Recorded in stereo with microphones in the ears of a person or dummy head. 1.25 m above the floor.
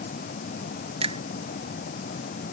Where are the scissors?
No scissors in this recording.